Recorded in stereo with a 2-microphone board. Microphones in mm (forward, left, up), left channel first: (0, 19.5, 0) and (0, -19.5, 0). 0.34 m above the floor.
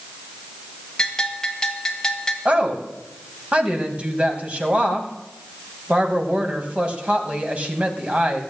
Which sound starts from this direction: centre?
A bell, at 1.0 s.